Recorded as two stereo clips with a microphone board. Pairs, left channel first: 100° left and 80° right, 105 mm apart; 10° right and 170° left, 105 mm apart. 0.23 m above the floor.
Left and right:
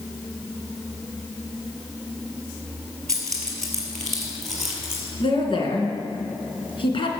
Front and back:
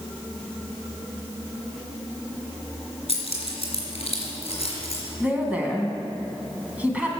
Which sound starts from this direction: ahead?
Keys jangling, at 3.1 s.